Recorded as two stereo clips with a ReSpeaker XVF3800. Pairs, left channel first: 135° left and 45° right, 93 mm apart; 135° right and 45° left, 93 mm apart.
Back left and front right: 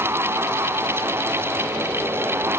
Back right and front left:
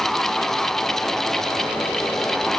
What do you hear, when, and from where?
Only background noise.